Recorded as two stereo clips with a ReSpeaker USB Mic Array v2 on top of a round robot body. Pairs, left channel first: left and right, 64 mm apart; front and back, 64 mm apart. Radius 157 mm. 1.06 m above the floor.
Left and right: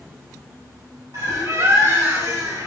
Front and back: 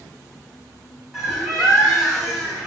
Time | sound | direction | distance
1.1 | a bird | 95° right | 2.5 m